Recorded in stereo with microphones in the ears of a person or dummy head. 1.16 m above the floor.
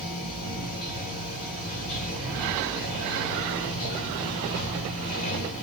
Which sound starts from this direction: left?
Running water, at 0.0 s.